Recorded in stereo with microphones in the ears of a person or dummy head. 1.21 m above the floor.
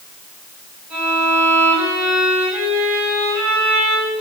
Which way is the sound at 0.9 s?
10° right (ahead or behind).